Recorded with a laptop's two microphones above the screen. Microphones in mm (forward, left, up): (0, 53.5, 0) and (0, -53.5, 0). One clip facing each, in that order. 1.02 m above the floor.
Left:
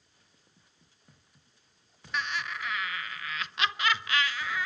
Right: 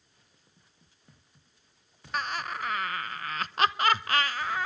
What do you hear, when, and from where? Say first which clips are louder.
2.1 s laughter: right 2 dB; 45° right (ahead or behind), 0.7 m